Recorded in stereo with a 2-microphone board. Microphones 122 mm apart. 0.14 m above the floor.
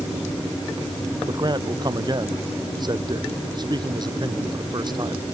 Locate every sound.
1.3 s a man speaking: 35° right (ahead or behind)